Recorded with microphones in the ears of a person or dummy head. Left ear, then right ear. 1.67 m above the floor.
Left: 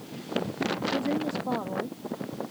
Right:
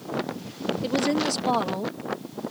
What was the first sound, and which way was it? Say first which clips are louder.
A woman speaking: right 8 dB; 55° right (ahead or behind).